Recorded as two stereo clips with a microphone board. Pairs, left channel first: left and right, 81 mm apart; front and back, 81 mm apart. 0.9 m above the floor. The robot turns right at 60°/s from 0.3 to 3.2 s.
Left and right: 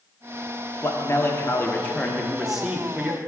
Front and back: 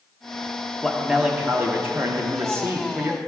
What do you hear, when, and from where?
0.8 s a man speaking: 85° left, 0.7 m; by 3.2 s 135° right, 0.7 m